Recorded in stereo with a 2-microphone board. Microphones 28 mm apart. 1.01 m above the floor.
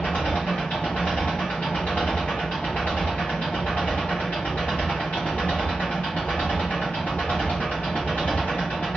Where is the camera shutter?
I don't hear a camera shutter.